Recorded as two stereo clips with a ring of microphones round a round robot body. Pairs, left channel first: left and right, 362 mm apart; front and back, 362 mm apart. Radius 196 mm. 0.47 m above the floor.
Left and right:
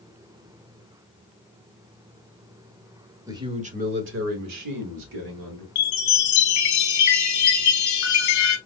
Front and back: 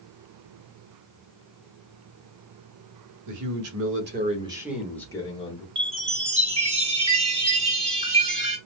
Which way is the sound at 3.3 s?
170° right.